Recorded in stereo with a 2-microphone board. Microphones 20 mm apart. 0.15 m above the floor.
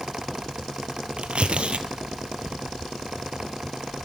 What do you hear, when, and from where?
1.2 s tearing paper: 70° right (ahead or behind), 0.9 m